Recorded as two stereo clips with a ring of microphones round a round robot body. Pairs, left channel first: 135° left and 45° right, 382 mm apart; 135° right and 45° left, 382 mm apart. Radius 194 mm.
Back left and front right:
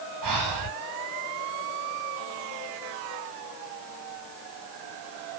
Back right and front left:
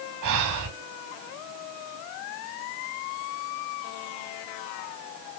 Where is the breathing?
Straight ahead, 4 m.